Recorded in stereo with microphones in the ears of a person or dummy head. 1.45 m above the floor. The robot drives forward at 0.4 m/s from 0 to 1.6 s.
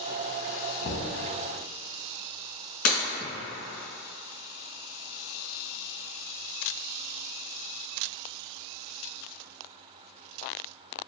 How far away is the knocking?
About 0.7 m.